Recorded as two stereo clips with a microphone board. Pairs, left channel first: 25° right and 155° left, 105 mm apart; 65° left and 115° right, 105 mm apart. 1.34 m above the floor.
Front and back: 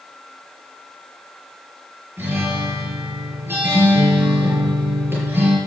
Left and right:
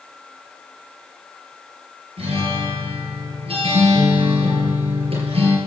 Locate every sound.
2.2 s a guitar: 135° right, 5.5 m